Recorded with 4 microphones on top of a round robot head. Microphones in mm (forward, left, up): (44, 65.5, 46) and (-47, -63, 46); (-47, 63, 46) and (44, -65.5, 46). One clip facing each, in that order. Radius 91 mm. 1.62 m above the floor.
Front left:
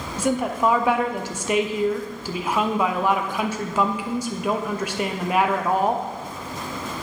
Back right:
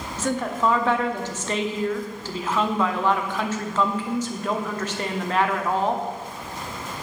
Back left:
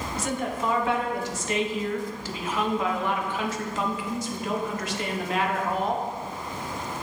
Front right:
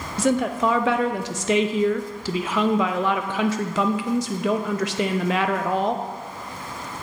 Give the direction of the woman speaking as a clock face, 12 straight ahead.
1 o'clock.